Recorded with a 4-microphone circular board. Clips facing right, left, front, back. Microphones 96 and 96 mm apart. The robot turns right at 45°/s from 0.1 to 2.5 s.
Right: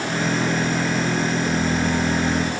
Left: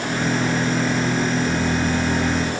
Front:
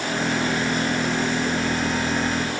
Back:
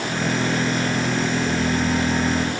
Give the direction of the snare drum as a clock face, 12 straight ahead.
No snare drum in this recording.